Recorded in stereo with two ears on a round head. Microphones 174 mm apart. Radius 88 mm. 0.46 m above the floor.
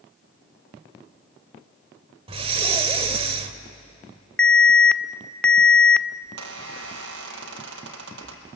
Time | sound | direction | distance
2.3 | breathing | 30° right (ahead or behind) | 1.2 m
4.4 | an alarm | 5° left (ahead or behind) | 0.5 m
6.2 | a squeak | 65° right (ahead or behind) | 3.5 m